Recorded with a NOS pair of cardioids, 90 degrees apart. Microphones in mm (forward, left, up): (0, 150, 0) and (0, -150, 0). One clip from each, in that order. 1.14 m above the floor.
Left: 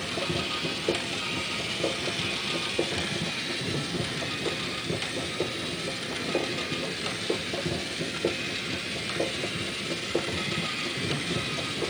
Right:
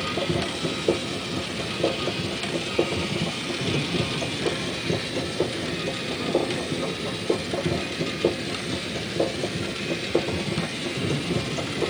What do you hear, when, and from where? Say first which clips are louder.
0.0 s a machine running: right 3 dB; 40° right